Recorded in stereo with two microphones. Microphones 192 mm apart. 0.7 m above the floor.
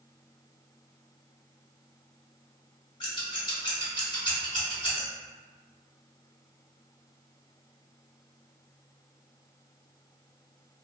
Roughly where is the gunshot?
No gunshot in this recording.